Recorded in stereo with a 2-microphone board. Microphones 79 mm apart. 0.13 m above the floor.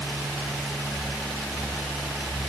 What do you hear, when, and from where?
Only background noise.